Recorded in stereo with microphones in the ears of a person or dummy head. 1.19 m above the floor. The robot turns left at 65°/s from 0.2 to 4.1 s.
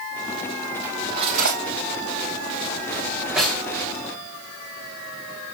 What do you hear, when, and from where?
0.8 s cutlery clinking: 10° right (ahead or behind), 3 m; by 3.7 s 10° left (ahead or behind), 3 m